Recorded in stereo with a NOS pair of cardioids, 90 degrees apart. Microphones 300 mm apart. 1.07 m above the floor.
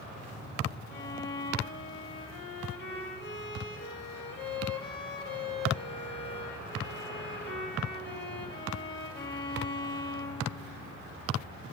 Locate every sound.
0.9 s a violin: 40° left, 1.2 m